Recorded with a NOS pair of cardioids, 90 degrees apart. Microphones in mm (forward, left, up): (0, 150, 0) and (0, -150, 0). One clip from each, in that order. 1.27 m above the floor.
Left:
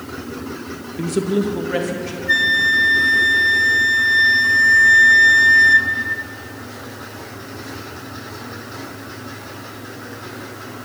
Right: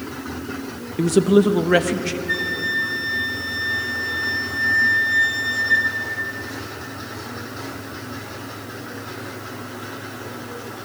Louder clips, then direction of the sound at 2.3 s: Left 9 dB; 45° left.